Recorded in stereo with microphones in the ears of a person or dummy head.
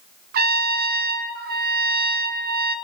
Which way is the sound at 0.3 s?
50° right (ahead or behind).